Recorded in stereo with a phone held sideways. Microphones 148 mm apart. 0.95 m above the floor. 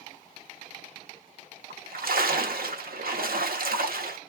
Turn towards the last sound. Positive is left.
turn(degrees=-85)